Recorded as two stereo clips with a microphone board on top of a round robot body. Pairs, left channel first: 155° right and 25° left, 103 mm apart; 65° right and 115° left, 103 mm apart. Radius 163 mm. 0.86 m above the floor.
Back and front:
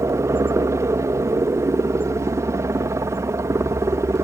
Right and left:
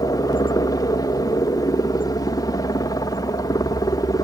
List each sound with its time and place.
0.0 s a helicopter: 30° right